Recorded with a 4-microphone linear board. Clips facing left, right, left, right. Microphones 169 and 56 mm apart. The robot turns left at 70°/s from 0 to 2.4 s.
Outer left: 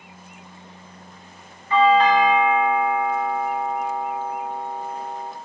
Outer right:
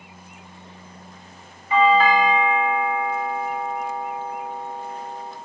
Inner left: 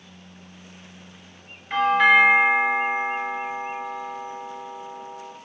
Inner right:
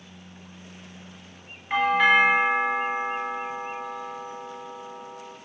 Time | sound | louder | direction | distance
1.7 | a doorbell | outer left 1 dB, inner left 3 dB | 15° right (ahead or behind) | 1.5 m